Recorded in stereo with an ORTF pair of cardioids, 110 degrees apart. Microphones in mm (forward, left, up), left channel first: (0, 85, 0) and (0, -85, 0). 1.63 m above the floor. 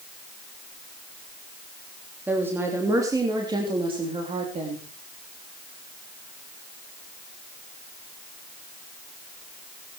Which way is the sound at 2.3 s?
10° right.